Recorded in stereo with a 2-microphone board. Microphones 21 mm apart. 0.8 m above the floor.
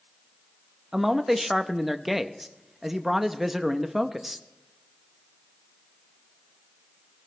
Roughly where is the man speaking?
Centre.